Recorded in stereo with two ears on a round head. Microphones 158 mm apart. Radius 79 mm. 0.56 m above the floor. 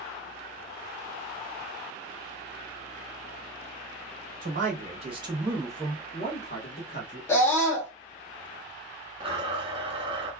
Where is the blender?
30° right (ahead or behind), 0.9 m.